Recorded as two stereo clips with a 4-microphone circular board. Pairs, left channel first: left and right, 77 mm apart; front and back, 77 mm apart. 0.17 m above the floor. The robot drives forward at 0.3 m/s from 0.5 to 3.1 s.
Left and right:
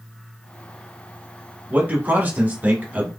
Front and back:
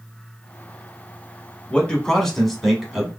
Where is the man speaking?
55° right, 1.1 m; by 3.1 s 110° right, 1.0 m.